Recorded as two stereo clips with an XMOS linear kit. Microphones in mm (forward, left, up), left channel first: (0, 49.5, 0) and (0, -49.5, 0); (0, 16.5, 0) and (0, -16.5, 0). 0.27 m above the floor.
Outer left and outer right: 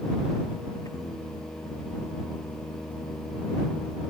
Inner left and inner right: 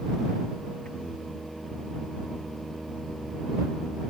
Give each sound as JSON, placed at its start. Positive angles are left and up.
{"t": 0.8, "sound": "singing", "side_deg": 30}